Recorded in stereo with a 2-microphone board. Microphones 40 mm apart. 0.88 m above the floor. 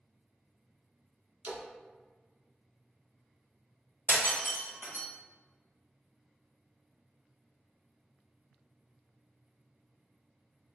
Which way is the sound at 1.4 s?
55° right (ahead or behind).